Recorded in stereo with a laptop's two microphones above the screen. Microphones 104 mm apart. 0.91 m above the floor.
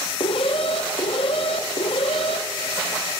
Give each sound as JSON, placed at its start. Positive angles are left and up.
{"t": 0.2, "sound": "an alarm", "side_deg": 60, "distance_m": 1.0}